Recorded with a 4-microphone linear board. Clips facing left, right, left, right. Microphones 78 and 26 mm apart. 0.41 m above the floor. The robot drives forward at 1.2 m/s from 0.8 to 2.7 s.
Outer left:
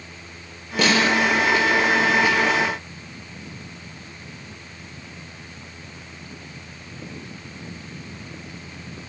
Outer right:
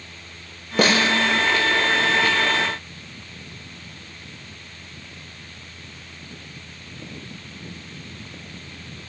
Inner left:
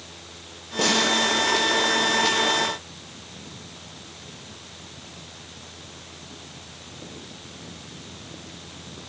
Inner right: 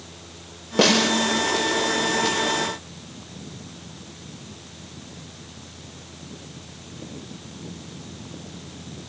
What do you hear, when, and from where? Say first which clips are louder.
0.8 s a snare drum: even, inner right 3 dB; 45° right (ahead or behind), 1.1 m; by 1.1 s 40° right (ahead or behind), 1.2 m